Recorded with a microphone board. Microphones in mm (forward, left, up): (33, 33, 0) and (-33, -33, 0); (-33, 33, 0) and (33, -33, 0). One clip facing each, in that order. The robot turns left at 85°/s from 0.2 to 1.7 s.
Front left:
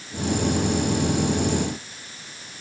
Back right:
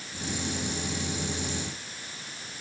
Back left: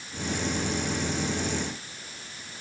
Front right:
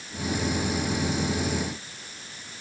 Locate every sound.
Only background noise.